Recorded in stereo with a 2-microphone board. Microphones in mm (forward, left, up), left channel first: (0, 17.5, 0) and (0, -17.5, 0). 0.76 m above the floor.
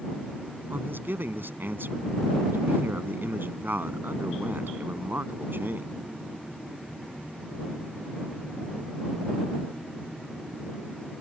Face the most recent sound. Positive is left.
turn(degrees=-75)  # may be behind; listen again after turning